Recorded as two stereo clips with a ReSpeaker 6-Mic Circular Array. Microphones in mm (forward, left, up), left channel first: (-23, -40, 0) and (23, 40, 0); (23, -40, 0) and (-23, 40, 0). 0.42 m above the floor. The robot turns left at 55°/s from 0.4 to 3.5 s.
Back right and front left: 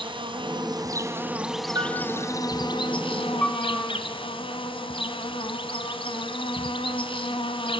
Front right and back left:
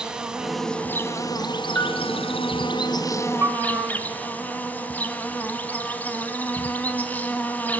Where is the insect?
40° left, 1.7 m; by 7.8 s 135° right, 1.7 m.